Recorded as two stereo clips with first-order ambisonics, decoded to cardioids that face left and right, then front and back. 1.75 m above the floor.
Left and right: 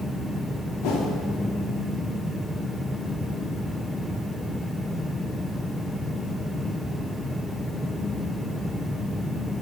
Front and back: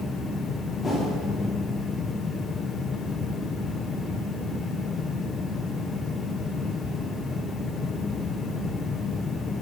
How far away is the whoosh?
About 1.1 m.